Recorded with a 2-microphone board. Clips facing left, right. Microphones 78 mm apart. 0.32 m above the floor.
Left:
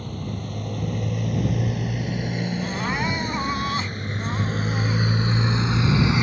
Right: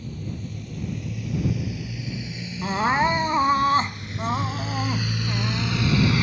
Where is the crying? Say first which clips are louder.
Right 9 dB; 40° right (ahead or behind).